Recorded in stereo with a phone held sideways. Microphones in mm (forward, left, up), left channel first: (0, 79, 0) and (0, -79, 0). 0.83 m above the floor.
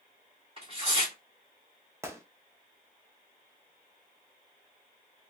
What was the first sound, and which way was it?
Tearing paper, 40° right (ahead or behind).